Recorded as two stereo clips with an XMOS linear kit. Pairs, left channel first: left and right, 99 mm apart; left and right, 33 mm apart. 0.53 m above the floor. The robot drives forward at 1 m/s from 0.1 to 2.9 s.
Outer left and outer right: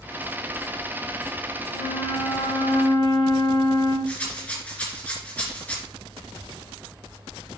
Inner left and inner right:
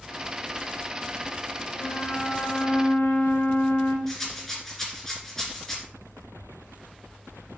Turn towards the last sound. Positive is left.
turn(degrees=15)  # may be behind; listen again after turning